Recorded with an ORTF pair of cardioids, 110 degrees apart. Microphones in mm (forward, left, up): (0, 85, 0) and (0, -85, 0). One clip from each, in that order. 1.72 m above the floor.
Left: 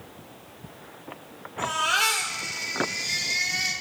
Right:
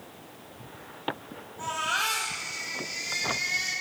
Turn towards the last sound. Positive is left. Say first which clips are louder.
# left 5 dB
turn(degrees=70)